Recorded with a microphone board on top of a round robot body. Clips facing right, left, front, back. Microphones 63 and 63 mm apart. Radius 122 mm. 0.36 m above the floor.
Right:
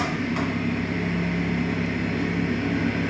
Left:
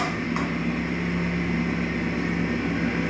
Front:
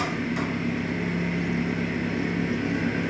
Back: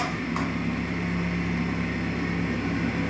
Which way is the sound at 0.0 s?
160° left.